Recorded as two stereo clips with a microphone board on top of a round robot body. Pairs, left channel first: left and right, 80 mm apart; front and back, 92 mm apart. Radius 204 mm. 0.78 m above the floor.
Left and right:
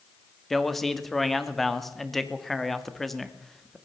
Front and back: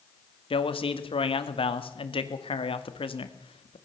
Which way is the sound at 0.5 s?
Straight ahead.